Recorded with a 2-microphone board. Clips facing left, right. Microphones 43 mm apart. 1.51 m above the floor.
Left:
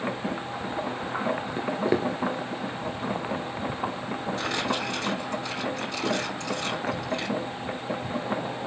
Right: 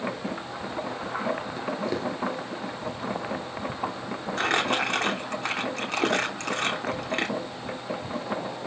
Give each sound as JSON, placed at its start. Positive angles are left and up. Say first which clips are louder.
{"t": 1.6, "sound": "footsteps", "louder": "left 4 dB", "side_deg": 35, "distance_m": 1.8}
{"t": 4.4, "sound": "crumpling", "louder": "right 6 dB", "side_deg": -70, "distance_m": 2.5}